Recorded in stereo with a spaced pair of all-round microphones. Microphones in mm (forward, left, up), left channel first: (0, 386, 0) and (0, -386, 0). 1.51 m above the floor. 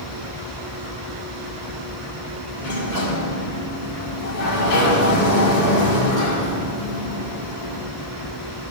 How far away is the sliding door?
About 2 m.